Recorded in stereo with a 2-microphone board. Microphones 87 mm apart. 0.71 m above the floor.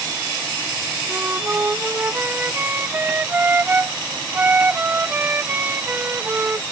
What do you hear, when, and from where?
1.1 s a flute: 25° right (ahead or behind)